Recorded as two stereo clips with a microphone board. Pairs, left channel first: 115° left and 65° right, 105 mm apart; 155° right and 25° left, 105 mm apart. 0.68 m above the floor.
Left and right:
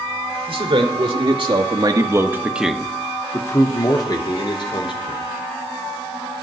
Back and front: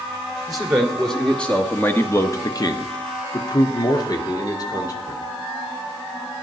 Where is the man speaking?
65° right, 1.7 m; by 5.2 s 150° left, 2.5 m.